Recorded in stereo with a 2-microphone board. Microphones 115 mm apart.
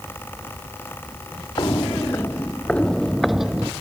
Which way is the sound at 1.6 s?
35° left (ahead or behind).